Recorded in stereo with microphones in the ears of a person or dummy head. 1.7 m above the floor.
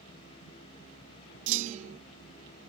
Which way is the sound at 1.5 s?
40° right (ahead or behind).